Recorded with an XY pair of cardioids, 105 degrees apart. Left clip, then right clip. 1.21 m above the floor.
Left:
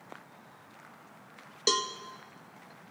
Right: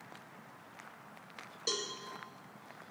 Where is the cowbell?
65° left, 0.9 m.